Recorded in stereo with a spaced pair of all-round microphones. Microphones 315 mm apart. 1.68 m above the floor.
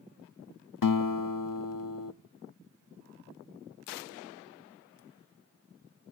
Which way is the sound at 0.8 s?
75° left (ahead or behind).